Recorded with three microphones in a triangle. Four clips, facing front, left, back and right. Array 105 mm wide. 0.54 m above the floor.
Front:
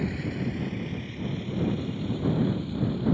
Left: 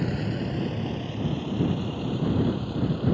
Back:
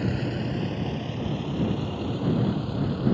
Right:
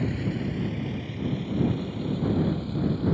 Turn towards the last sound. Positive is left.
turn(degrees=155)